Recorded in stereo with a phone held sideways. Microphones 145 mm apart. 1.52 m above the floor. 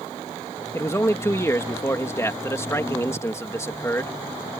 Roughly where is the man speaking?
Centre.